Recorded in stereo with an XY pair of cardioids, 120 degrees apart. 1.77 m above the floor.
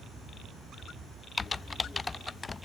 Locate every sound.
1.4 s typing on a keyboard: 20° left, 0.5 m